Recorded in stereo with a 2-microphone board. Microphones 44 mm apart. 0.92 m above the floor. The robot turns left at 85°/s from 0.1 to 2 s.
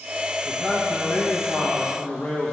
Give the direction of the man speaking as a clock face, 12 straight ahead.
6 o'clock.